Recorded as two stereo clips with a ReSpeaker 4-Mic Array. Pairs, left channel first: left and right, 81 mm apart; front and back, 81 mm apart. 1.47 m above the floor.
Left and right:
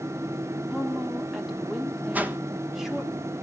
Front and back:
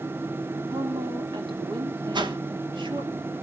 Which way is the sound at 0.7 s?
175° right.